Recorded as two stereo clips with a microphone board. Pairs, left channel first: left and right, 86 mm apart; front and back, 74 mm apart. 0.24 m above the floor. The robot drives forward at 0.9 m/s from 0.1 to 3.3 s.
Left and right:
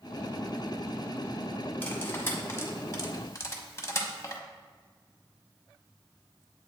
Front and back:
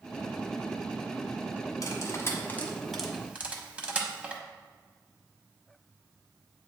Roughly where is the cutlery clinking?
Ahead left.